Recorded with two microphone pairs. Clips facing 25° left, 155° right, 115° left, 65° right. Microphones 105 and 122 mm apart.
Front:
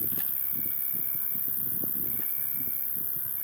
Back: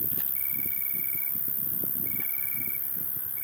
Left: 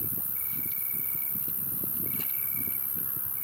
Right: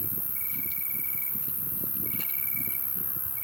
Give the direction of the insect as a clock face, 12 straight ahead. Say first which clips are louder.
Even, even; 1 o'clock.